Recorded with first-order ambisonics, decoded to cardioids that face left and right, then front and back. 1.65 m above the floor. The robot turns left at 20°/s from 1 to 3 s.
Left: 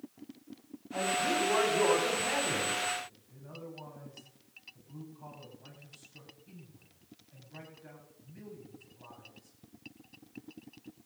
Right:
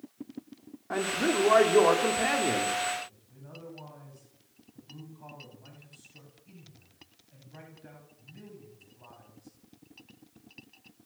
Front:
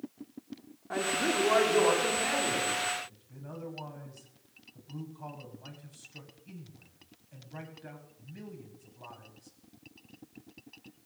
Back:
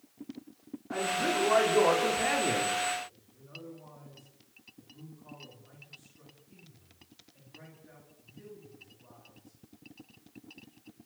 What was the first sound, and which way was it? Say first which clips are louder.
A man speaking: right 2 dB, even; 75° right.